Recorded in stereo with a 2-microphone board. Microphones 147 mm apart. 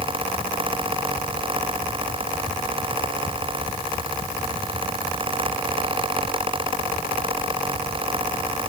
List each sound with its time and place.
Only background noise.